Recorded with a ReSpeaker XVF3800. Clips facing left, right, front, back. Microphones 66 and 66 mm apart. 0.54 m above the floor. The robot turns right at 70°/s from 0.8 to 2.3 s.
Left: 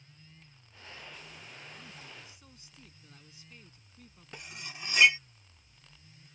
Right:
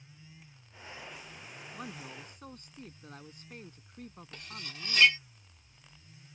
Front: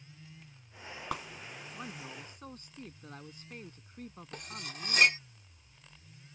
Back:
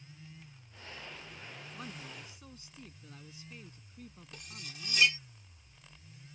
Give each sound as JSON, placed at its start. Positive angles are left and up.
{"t": 1.7, "sound": "a man speaking", "azimuth_deg": -85}
{"t": 4.3, "sound": "cutlery clinking", "azimuth_deg": 15}